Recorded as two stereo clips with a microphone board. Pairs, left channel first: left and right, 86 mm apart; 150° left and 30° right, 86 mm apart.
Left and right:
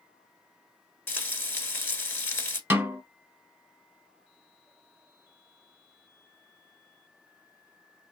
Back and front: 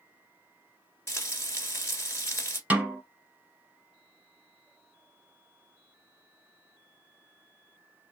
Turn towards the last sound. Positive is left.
turn(degrees=-75)